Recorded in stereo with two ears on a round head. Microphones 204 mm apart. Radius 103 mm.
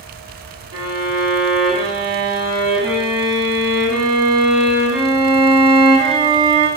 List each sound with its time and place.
0.7 s a violin: 45° right (ahead or behind), 1.8 m